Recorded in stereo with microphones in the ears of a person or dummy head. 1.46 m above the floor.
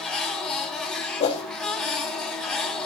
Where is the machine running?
5° left (ahead or behind), 2 m.